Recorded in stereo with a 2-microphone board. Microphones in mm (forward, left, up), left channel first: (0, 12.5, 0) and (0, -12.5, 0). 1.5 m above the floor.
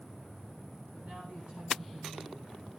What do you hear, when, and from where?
0.9 s a woman speaking: 80° right, 9.5 m; by 2.6 s 90° right, 10 m